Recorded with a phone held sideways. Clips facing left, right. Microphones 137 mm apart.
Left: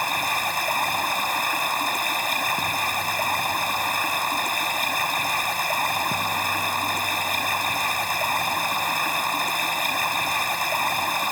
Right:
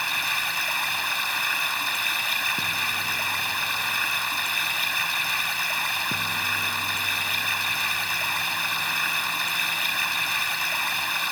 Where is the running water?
45° left (ahead or behind).